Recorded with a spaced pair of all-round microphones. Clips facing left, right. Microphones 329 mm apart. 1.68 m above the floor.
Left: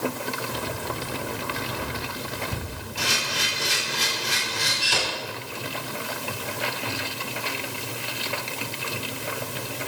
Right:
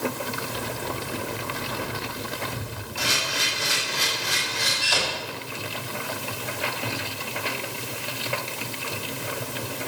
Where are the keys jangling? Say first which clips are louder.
Even; 55° left (ahead or behind), 8 m; by 2.8 s 50° left (ahead or behind), 7 m.